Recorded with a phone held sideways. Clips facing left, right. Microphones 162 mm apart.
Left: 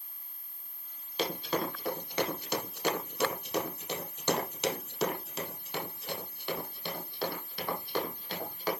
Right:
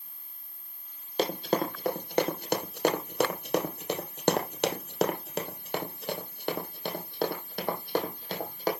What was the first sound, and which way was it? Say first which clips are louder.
Running footsteps: right 5 dB; 45° right (ahead or behind).